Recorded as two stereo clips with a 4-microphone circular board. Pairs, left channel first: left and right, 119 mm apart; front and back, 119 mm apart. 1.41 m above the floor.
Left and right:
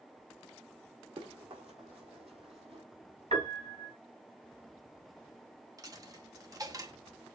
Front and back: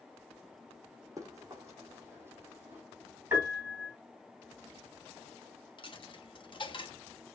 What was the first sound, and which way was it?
Running footsteps, 120° right.